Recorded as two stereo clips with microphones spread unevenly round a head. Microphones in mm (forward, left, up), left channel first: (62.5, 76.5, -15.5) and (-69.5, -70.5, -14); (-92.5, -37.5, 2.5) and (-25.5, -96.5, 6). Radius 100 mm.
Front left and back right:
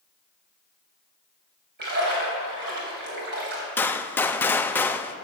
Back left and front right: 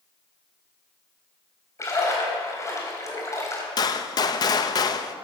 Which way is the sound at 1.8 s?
165° right.